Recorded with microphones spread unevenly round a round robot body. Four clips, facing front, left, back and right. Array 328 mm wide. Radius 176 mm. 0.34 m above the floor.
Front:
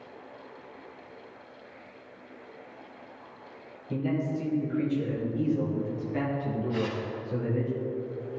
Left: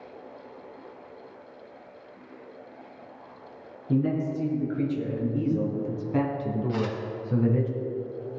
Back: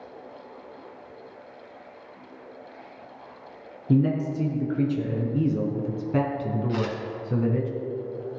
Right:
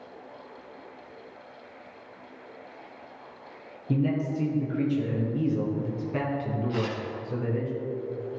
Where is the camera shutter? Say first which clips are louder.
Even, back 2 dB; 150° left, 4.5 m.